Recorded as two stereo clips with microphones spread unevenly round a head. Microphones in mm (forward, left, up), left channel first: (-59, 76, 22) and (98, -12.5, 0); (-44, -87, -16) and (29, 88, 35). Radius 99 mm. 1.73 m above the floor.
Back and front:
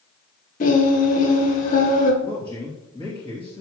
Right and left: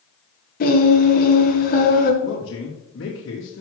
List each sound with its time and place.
0.6 s singing: 160° right, 1.8 m
2.2 s a man speaking: 140° right, 3 m